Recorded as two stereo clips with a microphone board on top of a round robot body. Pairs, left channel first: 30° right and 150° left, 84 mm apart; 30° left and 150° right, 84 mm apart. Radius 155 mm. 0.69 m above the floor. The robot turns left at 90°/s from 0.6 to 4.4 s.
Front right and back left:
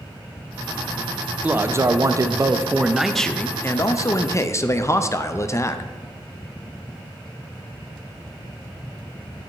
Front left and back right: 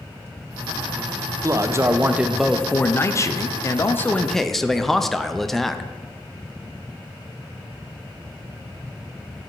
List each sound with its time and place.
1.4 s a man speaking: 150° right, 0.7 m; by 5.9 s 55° right, 0.7 m